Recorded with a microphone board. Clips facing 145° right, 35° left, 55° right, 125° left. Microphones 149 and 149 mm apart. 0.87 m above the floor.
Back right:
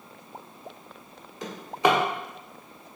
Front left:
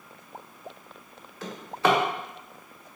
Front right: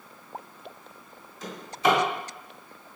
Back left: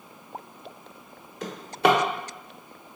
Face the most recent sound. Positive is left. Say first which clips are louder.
# back right 1 dB, back left 3 dB
turn(degrees=140)